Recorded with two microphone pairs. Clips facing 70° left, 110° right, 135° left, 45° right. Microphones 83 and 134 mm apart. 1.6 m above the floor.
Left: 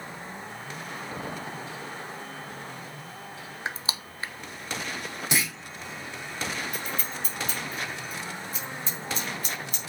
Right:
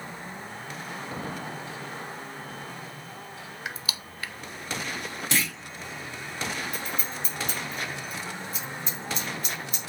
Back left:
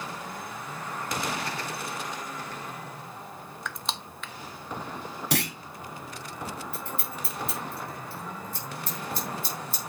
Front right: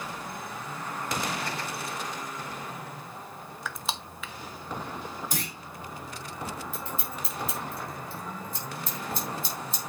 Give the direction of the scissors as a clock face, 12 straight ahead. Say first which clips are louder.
Even, even; 7 o'clock.